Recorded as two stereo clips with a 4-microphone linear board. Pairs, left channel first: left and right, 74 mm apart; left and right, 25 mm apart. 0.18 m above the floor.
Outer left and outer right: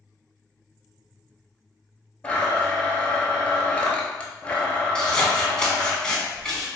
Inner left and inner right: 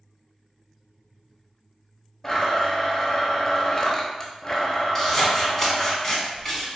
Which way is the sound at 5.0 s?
10° left (ahead or behind).